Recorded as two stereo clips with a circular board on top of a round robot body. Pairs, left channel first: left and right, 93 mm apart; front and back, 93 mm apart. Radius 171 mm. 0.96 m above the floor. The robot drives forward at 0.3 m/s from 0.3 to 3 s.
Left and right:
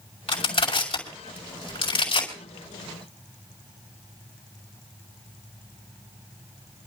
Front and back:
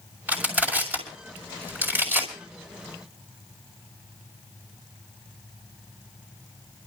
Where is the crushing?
105° left, 6 m; by 2.3 s 110° left, 6 m.